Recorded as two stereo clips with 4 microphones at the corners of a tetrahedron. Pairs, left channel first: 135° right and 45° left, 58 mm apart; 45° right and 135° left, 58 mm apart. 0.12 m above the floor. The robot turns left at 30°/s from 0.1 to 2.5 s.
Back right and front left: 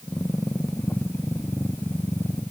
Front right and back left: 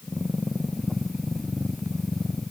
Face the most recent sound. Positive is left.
No sound to turn to.